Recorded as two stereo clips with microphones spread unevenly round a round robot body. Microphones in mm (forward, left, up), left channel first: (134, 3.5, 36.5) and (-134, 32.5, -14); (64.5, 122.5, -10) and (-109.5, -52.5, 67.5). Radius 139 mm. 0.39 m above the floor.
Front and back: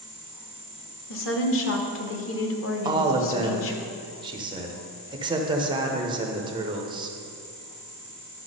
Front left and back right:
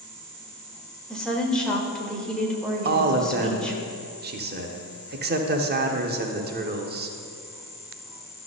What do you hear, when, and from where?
1.1 s a woman speaking: 10° right, 1.1 m
2.9 s a man speaking: straight behind, 0.9 m